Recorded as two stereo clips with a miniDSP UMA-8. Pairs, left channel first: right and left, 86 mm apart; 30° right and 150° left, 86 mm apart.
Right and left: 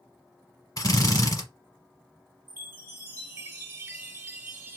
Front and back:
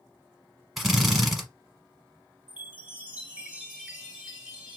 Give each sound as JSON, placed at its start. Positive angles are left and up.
{"t": 0.8, "sound": "a drill", "azimuth_deg": -120, "distance_m": 1.0}
{"t": 2.5, "sound": "a chime", "azimuth_deg": 90, "distance_m": 1.5}